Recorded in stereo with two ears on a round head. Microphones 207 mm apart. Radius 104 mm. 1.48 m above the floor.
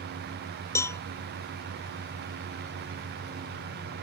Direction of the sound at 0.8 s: 15° left (ahead or behind).